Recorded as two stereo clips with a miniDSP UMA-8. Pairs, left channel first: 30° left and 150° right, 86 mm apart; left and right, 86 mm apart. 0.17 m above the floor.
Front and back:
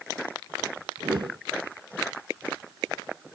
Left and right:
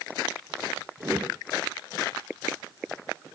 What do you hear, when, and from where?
1.0 s a whoosh: 145° right, 0.5 m